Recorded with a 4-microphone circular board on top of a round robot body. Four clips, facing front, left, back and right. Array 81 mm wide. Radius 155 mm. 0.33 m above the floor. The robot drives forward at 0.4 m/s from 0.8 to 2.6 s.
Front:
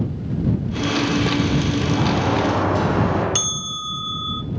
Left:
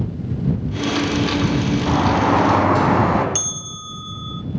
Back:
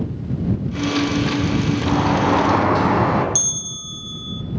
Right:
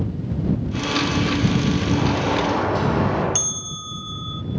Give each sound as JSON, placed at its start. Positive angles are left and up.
{"t": 1.9, "sound": "a sliding door", "azimuth_deg": 120, "distance_m": 3.5}
{"t": 3.4, "sound": "a bell", "azimuth_deg": 0, "distance_m": 0.5}